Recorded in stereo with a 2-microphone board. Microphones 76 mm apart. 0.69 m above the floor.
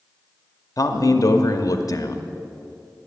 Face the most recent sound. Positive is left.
turn(degrees=55)  # may be behind; listen again after turning